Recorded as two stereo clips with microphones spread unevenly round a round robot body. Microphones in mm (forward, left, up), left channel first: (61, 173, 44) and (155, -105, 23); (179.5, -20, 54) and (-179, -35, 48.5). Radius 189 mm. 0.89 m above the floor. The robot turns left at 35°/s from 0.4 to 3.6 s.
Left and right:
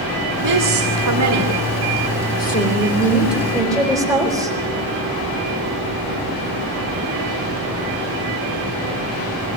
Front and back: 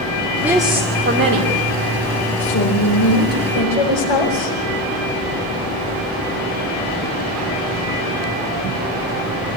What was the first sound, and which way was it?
A woman speaking, 90° right.